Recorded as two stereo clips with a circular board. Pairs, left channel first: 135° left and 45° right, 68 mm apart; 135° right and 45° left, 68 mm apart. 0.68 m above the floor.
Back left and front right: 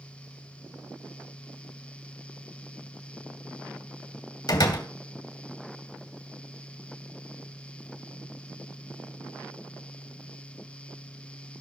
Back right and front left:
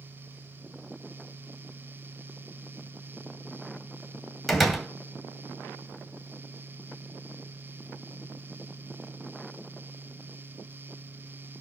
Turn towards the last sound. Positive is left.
turn(degrees=135)